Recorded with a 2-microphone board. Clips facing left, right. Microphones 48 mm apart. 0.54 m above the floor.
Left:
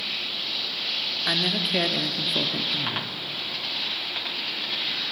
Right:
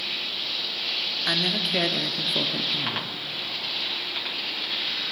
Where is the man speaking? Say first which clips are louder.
Even; 5° left (ahead or behind), 0.8 m; by 3.1 s centre (ahead or behind), 0.8 m.